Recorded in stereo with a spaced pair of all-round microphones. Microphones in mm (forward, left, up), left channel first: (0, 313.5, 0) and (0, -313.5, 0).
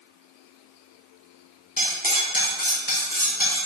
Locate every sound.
1.8 s cutlery clinking: 15° left (ahead or behind), 0.6 m